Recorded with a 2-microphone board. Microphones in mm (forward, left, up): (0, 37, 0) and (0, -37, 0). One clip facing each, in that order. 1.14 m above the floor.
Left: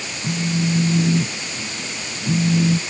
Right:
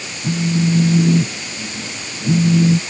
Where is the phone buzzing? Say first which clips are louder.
Right 4 dB; 25° right (ahead or behind).